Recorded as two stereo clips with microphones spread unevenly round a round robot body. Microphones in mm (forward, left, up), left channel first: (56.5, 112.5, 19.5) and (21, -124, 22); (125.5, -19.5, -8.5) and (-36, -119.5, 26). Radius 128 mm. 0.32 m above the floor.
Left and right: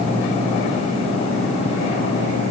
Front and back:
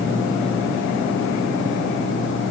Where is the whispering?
No whispering in this recording.